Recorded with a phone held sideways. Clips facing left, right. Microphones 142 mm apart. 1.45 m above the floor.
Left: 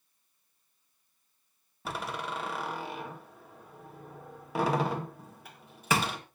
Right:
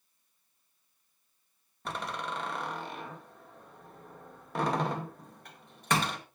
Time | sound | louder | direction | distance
1.9 | a door slam | left 1 dB | 5° left (ahead or behind) | 1.8 m